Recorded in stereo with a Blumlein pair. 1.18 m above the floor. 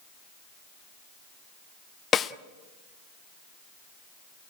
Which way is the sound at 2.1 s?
20° left.